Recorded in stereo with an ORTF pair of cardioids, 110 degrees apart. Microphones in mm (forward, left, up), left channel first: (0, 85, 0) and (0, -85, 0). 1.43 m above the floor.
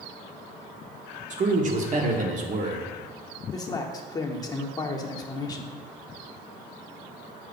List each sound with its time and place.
1.3 s a man speaking: 50° right, 1.2 m
3.5 s a man speaking: 25° left, 0.9 m